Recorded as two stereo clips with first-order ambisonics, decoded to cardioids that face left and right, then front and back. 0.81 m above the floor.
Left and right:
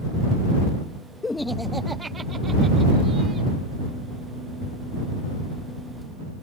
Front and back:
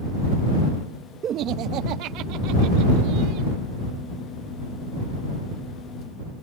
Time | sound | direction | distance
1.2 | laughter | 150° left | ?